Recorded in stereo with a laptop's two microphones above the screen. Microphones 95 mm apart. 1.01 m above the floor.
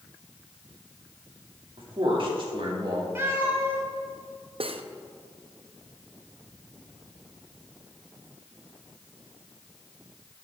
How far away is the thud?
I don't hear a thud.